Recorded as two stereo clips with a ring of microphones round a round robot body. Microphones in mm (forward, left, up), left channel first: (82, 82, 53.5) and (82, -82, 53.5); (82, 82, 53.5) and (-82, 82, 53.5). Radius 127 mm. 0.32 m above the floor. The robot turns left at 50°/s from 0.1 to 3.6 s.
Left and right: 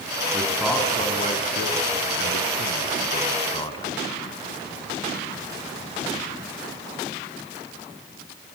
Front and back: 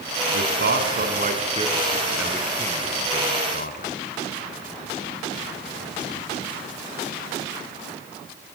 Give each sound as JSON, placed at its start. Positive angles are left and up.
{"t": 0.3, "sound": "a man speaking", "azimuth_deg": -170, "distance_m": 3.5}